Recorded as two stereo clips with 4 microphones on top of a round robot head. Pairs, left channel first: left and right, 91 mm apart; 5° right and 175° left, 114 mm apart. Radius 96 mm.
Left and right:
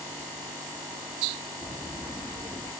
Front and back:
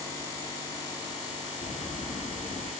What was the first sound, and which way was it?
Footsteps, 30° left.